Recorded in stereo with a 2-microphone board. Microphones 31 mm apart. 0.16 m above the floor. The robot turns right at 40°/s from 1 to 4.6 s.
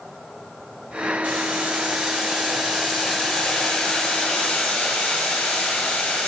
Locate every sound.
1.2 s boiling: 60° right, 1.4 m; by 6.3 s 75° left, 1.4 m